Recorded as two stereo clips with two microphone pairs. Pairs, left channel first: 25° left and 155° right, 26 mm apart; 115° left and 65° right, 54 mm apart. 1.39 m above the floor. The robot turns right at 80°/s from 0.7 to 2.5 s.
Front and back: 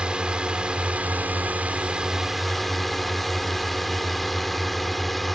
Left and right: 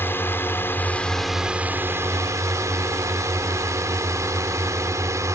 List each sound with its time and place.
0.0 s a drone: 160° left; by 5.4 s 60° right